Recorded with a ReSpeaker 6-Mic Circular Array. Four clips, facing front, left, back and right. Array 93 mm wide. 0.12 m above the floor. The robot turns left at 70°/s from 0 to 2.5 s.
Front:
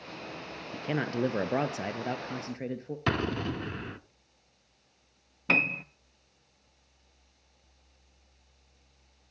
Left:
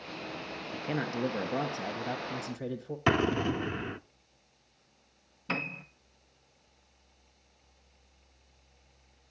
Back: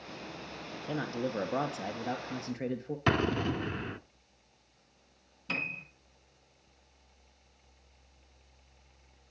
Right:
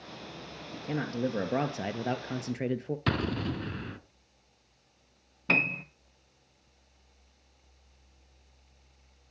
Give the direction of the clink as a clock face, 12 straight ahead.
I don't hear a clink.